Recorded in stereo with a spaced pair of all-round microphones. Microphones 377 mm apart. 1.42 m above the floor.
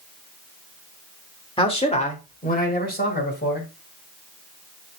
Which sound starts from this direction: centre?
A man speaking, at 1.6 s.